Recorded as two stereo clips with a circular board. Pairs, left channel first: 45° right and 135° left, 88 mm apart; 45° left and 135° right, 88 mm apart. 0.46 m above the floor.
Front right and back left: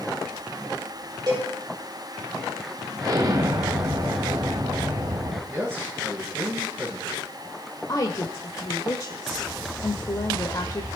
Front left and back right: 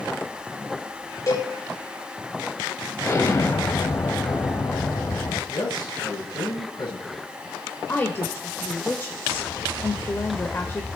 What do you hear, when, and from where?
1.3 s a cowbell: 95° left, 7.5 m
3.0 s an explosion: 100° left, 1.9 m
5.5 s a man speaking: 75° left, 7.5 m
7.9 s a woman speaking: 15° right, 1.3 m